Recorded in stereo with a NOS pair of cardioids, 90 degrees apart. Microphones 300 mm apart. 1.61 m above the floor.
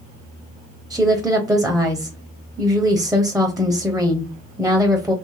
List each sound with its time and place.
0.9 s a woman speaking: straight ahead, 1.0 m